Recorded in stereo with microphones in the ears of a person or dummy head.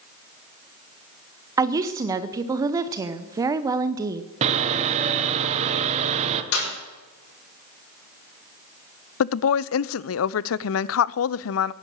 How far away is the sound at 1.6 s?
About 0.8 m.